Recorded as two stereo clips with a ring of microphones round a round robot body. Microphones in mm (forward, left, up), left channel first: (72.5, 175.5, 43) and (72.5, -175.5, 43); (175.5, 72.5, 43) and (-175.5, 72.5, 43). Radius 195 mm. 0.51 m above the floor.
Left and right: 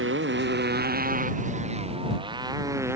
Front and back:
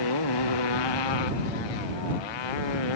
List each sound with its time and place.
0.0 s a motorcycle: 35° right; by 3.0 s 5° right